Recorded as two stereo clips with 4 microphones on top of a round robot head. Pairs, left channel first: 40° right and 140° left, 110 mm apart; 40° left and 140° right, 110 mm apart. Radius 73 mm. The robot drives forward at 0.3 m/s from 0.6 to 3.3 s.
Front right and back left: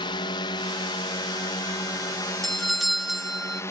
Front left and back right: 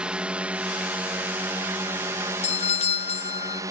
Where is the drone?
65° right; by 3.7 s 95° right.